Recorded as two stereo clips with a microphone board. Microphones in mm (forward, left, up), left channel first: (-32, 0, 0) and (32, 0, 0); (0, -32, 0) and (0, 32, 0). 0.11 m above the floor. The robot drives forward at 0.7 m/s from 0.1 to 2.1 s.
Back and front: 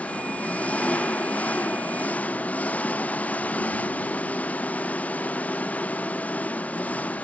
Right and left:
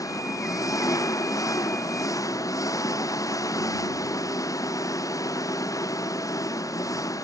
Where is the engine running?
115° right.